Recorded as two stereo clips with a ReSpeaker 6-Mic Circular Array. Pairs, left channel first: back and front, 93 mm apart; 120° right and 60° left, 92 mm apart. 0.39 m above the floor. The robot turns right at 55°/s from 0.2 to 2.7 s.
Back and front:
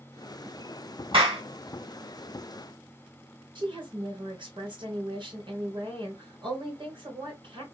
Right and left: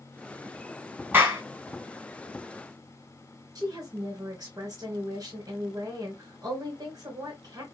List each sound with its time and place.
1.1 s a clap: 10° right, 2.5 m; by 1.4 s 5° left, 2.5 m
3.5 s a woman speaking: 15° left, 2.5 m